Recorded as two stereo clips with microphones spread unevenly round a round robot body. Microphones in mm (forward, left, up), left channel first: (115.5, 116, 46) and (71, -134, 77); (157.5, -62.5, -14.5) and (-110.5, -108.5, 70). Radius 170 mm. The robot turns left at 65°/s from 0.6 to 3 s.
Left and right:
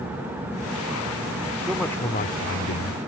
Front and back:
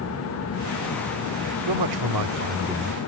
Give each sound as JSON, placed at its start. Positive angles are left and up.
{"t": 1.7, "sound": "a man speaking", "azimuth_deg": 175}